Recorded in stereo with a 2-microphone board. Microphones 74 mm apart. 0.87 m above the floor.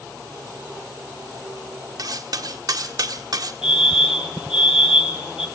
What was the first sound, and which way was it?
Cutlery clinking, 60° right (ahead or behind).